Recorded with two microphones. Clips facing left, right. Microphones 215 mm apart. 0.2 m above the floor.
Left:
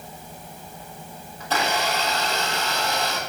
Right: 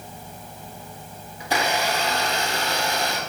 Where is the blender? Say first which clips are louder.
Right 1 dB; 15° right (ahead or behind), 1.5 m.